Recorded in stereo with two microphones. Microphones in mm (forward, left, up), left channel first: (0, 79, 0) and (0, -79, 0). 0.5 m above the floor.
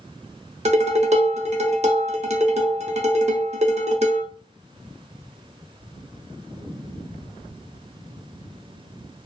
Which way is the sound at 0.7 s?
45° right (ahead or behind).